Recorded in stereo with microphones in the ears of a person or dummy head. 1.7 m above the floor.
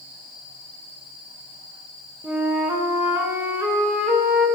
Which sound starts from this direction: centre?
A flute, at 2.2 s.